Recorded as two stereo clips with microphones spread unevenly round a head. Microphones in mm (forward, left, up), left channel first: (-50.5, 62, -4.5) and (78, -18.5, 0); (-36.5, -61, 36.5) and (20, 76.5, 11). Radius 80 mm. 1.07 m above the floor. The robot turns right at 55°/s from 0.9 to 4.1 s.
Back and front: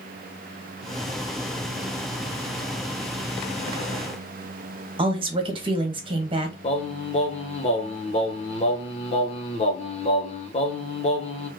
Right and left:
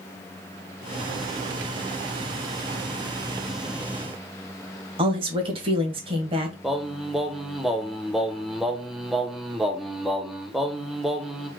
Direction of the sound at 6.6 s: 140° left.